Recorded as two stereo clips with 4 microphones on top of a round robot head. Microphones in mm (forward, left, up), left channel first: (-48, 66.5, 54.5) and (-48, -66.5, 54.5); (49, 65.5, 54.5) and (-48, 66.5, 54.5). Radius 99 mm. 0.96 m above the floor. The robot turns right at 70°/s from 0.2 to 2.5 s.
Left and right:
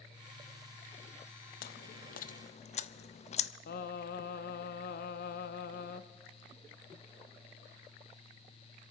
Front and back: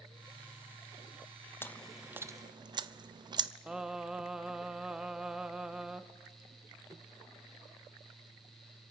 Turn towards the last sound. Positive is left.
turn(degrees=95)